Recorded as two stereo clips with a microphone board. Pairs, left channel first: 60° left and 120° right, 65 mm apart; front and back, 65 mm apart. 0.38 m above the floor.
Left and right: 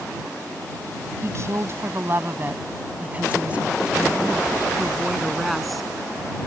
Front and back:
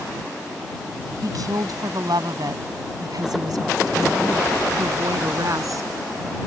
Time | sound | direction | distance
1.2 | a woman speaking | 160° right | ?